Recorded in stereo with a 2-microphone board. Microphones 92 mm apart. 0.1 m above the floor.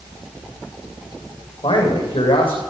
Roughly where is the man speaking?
Left.